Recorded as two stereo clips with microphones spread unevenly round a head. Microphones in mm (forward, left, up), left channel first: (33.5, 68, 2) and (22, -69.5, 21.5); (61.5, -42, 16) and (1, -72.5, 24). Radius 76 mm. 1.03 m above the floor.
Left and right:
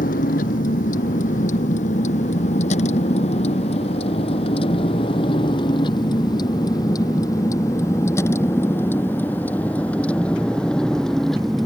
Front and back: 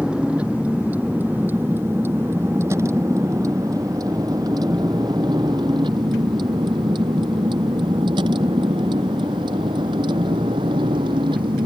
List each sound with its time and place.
0.0 s a vehicle: 125° left; by 11.7 s 175° left